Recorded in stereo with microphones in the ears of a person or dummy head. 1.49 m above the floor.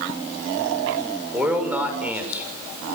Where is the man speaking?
5° right (ahead or behind), 6.5 m.